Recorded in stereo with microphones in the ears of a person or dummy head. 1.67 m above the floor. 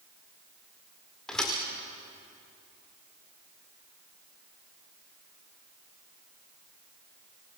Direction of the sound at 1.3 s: 5° left (ahead or behind).